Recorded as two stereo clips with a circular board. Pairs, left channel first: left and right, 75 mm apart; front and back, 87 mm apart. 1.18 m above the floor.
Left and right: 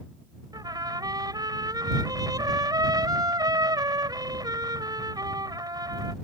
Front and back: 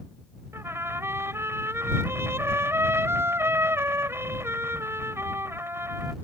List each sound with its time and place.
0.5 s a trumpet: 120° right